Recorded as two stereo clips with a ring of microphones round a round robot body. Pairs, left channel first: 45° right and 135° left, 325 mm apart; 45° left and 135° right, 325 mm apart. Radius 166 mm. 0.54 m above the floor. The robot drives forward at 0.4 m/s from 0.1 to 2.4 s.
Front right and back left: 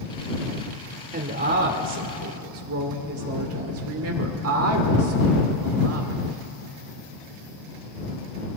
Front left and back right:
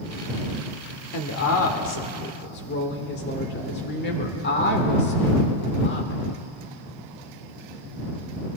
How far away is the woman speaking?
About 1.4 m.